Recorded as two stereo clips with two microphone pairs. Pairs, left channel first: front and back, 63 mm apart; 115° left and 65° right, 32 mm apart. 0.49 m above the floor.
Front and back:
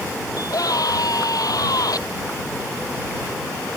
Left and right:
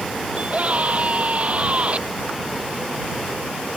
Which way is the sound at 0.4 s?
20° right.